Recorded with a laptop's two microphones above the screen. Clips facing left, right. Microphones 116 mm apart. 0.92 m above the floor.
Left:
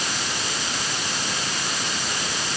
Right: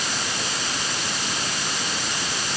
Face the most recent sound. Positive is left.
No sound to turn to.